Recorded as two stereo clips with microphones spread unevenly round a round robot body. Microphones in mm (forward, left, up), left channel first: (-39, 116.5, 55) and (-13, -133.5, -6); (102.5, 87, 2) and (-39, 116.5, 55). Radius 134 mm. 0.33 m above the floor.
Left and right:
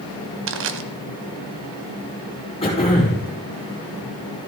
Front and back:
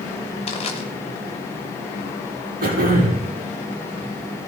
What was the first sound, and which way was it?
Crushing, 55° right.